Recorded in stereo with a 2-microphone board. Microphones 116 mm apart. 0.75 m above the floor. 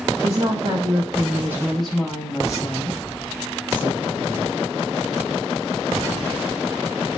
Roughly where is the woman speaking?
Right.